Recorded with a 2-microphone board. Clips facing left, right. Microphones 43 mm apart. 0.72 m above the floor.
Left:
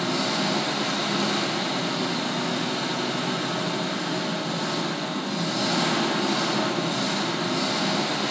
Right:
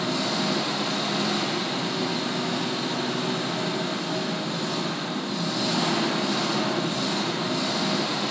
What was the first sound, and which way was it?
An engine running, 60° left (ahead or behind).